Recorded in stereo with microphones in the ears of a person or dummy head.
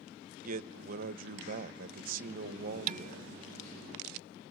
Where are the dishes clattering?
45° right (ahead or behind), 0.6 m.